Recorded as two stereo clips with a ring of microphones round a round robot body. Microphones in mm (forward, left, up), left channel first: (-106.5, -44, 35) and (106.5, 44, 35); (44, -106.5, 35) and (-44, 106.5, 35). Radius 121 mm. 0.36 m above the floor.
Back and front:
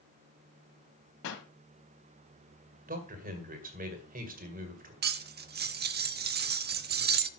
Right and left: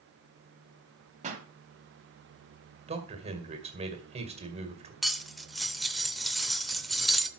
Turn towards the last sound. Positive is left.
turn(degrees=20)